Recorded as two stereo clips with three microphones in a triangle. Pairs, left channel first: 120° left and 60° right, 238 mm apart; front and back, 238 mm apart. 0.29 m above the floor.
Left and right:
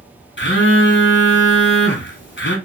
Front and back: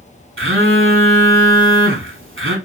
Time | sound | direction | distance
0.4 | a phone buzzing | 155° left | 0.7 m